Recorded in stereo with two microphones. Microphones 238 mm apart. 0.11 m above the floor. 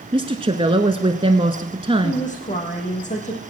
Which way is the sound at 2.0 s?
30° left (ahead or behind).